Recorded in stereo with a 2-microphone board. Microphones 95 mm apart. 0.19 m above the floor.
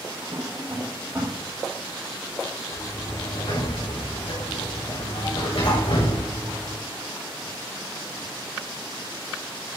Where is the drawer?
25° right (ahead or behind), 5.5 m.